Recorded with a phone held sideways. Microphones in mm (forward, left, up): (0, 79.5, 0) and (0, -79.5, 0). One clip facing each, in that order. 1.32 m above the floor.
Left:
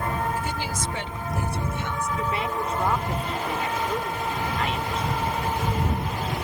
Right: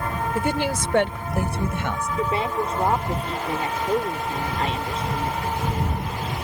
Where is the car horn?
I don't hear a car horn.